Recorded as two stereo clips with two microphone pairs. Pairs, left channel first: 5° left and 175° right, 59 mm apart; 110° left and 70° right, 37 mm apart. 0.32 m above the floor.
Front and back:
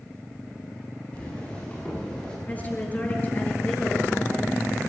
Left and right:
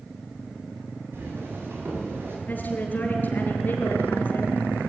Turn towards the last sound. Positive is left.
turn(degrees=70)